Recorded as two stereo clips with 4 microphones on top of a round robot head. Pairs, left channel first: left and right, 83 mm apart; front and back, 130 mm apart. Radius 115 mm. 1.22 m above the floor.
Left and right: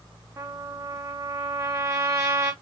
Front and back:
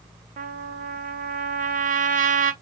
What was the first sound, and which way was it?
A trumpet, 150° right.